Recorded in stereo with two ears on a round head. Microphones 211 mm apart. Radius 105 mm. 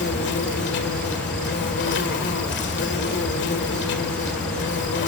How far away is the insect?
About 1.6 m.